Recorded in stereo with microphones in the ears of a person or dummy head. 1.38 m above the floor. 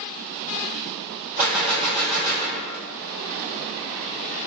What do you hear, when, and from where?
1.4 s a gunshot: 40° right (ahead or behind), 1.4 m